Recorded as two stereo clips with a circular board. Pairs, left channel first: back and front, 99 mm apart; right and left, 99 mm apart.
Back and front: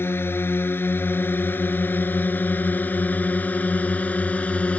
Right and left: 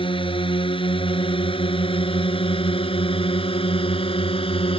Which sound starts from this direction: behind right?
A drone, at 0.0 s.